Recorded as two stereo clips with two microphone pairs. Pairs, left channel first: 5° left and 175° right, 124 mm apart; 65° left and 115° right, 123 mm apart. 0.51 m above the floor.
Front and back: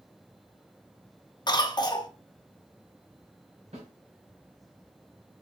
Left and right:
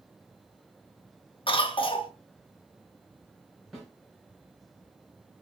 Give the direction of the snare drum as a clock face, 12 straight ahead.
7 o'clock.